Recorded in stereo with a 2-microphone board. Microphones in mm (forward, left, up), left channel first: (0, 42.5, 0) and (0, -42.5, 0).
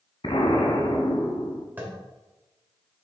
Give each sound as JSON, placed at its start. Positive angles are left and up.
{"t": 0.2, "sound": "an explosion", "side_deg": 80, "distance_m": 1.1}
{"t": 1.8, "sound": "tapping", "side_deg": -20, "distance_m": 1.9}